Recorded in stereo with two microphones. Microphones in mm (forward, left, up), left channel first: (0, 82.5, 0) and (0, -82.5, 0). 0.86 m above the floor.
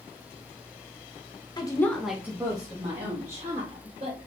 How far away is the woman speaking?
About 0.9 m.